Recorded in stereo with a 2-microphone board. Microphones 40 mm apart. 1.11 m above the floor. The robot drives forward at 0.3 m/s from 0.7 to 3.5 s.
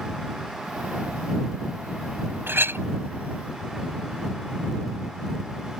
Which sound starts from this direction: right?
A clink, at 2.5 s.